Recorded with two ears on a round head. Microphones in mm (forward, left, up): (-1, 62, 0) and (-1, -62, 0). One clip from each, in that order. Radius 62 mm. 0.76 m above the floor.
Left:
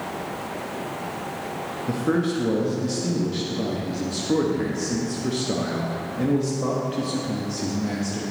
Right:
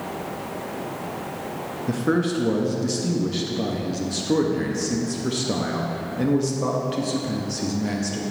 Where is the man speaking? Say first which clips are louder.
Right 1 dB; 20° right (ahead or behind), 0.6 m.